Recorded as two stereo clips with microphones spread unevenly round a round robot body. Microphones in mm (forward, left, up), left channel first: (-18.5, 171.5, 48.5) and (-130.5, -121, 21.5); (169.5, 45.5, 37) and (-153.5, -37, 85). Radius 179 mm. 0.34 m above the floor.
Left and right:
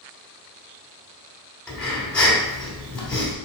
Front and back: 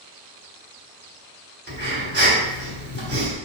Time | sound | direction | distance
1.7 | breathing | 160° left | 1.4 m